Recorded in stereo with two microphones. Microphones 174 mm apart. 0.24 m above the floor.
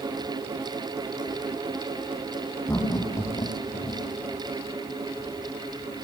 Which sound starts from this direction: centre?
Laughter, at 2.7 s.